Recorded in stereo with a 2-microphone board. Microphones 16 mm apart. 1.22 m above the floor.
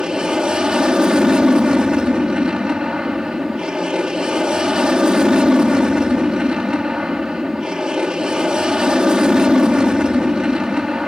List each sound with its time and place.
0.0 s an aircraft: 65° right (ahead or behind)